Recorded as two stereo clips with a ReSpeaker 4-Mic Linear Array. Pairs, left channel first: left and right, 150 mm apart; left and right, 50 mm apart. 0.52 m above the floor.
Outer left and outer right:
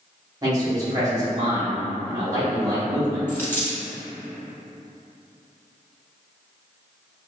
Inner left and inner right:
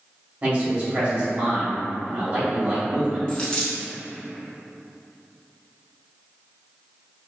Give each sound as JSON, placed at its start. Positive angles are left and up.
{"t": 0.4, "sound": "a man speaking", "side_deg": -25, "distance_m": 1.2}
{"t": 3.3, "sound": "a dropped coin", "side_deg": 15, "distance_m": 0.9}